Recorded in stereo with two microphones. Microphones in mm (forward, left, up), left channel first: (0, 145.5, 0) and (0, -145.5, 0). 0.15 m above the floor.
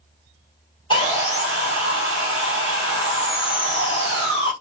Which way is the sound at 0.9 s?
15° left (ahead or behind).